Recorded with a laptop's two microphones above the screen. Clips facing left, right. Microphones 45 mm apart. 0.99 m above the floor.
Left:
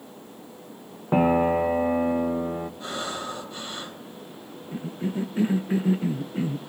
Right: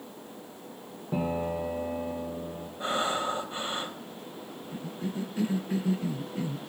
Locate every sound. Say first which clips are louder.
1.1 s a piano: left 10 dB; 60° left (ahead or behind), 0.9 m
2.8 s breathing: right 3 dB; 30° right (ahead or behind), 3 m
4.7 s a cough: left 6 dB; 35° left (ahead or behind), 0.6 m